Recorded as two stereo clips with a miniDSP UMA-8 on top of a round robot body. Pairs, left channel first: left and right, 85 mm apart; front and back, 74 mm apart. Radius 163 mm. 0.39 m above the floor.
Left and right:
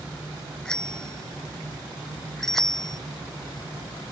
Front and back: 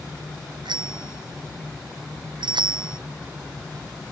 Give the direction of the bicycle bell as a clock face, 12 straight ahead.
6 o'clock.